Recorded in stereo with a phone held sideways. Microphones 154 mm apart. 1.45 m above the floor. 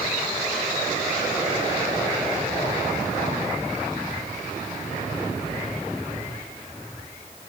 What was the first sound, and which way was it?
Only background noise.